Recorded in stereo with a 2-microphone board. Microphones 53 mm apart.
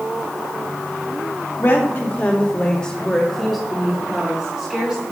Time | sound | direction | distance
1.6 | a woman speaking | 45° left (ahead or behind) | 1.4 m